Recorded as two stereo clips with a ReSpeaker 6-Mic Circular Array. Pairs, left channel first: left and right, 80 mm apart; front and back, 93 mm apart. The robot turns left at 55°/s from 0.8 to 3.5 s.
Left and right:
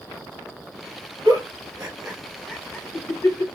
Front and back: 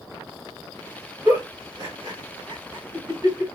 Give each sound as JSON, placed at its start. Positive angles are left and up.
{"t": 1.2, "sound": "a giggle", "azimuth_deg": -120, "distance_m": 1.9}